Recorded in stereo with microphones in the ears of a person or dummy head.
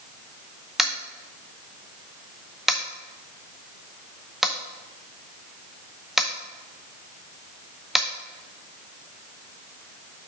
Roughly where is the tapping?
Centre.